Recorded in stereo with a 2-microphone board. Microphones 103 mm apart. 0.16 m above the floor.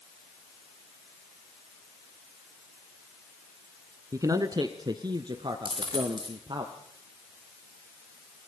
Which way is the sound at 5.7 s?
50° right (ahead or behind).